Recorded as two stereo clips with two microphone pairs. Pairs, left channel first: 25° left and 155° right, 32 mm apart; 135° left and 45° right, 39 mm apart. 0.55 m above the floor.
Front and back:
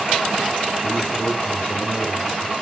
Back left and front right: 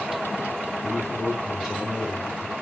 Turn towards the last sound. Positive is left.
turn(degrees=55)